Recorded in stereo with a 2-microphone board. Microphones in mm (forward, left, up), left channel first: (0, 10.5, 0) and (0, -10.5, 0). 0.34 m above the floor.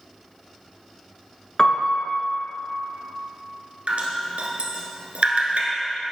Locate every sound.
1.6 s a piano: 40° left (ahead or behind), 1.3 m
3.9 s dripping: 85° right, 1.3 m